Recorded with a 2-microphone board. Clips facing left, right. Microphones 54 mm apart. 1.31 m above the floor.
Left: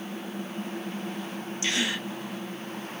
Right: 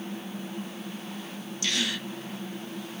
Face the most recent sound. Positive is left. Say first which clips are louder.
# left 1 dB
turn(degrees=25)  # may be behind; listen again after turning